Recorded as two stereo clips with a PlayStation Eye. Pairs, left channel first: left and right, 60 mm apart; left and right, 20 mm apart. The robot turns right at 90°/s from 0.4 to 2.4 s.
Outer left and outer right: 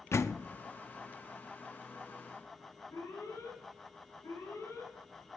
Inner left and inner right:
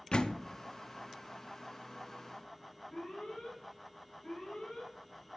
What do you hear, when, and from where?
0.1 s a door slam: 45° left (ahead or behind), 0.6 m; by 0.5 s 50° left (ahead or behind), 0.6 m
2.9 s an alarm: 70° left (ahead or behind), 8 m